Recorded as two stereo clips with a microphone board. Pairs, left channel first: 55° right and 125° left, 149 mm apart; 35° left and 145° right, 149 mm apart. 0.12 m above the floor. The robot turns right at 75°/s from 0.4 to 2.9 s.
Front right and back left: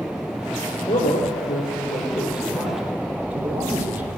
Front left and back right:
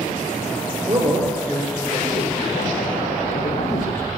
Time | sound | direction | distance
0.8 | a man speaking | 110° right | 4 m